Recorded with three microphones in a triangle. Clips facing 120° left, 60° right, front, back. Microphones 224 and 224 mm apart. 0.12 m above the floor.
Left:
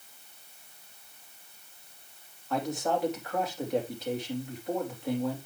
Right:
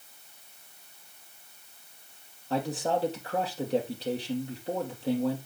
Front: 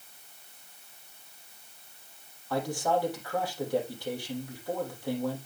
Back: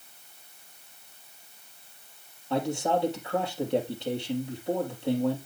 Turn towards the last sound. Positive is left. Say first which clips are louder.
# right 1 dB, back 2 dB
turn(degrees=-115)